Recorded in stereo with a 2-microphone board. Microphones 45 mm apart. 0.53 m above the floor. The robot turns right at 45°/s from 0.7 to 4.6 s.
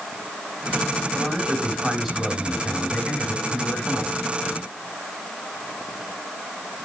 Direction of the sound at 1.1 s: 40° right.